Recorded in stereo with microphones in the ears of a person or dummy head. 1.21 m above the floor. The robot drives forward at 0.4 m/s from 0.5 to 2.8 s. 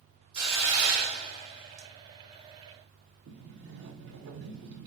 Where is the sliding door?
60° right (ahead or behind), 1.0 m.